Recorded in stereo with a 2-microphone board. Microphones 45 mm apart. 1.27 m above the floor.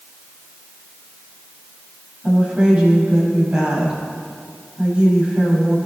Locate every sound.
2.2 s a woman speaking: 25° right (ahead or behind), 6.5 m